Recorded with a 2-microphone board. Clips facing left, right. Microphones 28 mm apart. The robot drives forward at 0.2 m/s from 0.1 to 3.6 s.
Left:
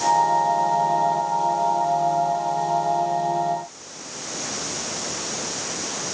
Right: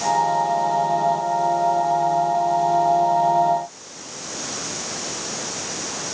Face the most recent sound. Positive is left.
No sound to turn to.